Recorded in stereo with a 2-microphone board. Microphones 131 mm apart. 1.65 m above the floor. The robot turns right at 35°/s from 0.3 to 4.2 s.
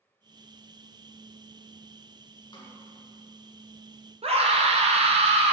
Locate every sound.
2.5 s a snare drum: 35° left (ahead or behind), 1.4 m; by 2.8 s 25° left (ahead or behind), 1.4 m
4.2 s a scream: 50° right (ahead or behind), 0.9 m